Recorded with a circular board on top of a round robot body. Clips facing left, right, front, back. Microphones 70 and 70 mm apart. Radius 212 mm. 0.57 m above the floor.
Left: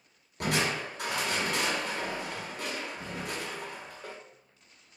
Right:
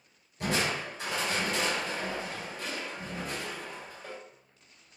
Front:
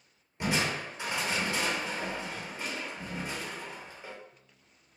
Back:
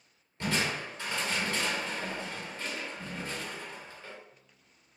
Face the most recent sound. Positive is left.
turn(degrees=70)